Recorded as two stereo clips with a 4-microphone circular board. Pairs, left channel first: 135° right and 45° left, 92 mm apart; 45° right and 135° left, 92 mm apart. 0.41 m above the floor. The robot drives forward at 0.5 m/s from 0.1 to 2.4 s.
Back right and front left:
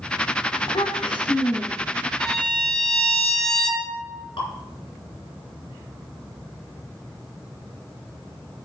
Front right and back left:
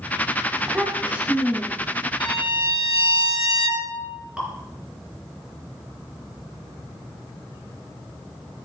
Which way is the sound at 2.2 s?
50° right.